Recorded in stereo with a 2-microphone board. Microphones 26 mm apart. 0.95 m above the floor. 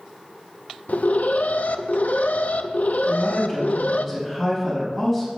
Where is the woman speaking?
5° right (ahead or behind), 5 m.